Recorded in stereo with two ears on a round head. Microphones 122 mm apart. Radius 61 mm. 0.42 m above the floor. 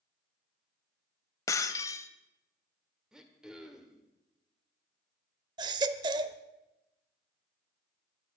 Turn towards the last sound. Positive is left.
turn(degrees=-30)  # may be behind; listen again after turning